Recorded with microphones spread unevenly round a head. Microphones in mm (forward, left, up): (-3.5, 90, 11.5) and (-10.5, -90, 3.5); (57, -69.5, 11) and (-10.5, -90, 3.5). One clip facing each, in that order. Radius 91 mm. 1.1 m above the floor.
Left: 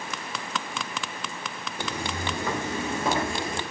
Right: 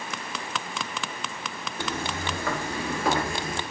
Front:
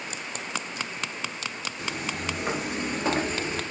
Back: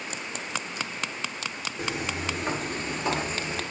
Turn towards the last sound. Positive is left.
turn(degrees=30)